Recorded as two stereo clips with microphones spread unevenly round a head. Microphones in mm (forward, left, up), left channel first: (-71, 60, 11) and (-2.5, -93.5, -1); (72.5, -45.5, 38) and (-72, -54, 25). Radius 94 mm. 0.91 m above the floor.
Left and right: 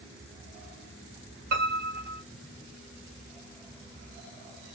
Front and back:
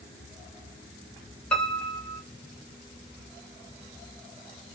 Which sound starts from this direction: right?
A piano, at 1.5 s.